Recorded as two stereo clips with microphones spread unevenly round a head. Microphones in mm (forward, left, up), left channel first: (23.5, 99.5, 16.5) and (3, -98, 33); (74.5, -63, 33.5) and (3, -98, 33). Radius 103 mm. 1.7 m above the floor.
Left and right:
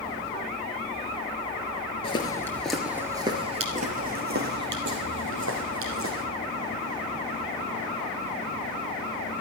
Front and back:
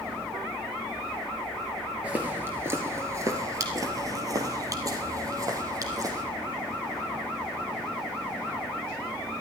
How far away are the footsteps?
About 1.9 m.